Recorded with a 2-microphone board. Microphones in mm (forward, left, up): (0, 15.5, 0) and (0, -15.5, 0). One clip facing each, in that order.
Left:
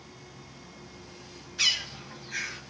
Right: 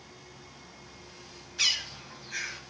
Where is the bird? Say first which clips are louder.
Left 2 dB; centre (ahead or behind), 1.0 m.